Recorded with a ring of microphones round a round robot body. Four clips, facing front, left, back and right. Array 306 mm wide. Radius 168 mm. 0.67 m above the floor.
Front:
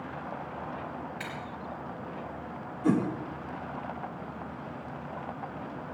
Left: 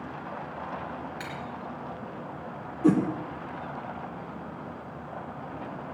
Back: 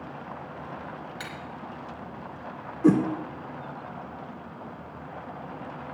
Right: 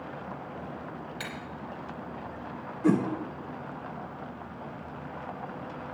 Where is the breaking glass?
155° right, 3 m.